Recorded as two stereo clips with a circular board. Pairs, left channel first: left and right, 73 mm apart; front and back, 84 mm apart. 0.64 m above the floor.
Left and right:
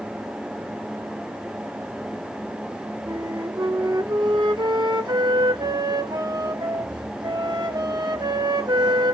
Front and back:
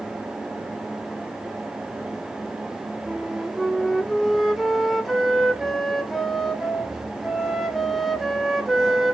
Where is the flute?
90° right, 0.6 m.